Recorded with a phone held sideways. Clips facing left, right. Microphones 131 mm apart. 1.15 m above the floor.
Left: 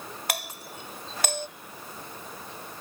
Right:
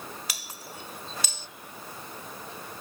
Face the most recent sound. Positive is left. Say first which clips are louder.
# left 7 dB
turn(degrees=65)  # may be behind; listen again after turning